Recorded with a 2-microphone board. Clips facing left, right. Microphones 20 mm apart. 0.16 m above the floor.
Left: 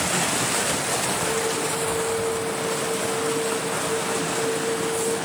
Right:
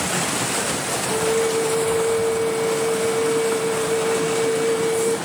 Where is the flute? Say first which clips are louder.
Right 4 dB; 55° right (ahead or behind), 1.6 m.